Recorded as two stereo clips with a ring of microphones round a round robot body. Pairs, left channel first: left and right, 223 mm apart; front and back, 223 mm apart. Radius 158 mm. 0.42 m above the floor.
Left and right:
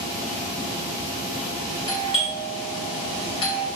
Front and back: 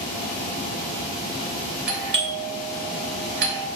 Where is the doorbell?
155° left, 2.5 m.